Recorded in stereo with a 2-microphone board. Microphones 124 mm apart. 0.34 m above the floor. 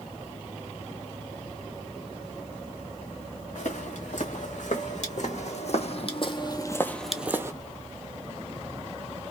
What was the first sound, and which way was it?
Footsteps, 75° left (ahead or behind).